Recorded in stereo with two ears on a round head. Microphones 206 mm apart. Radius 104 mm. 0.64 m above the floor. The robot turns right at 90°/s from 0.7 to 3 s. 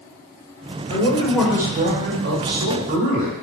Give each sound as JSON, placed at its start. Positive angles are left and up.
{"t": 0.9, "sound": "a man speaking", "azimuth_deg": 130, "distance_m": 3.0}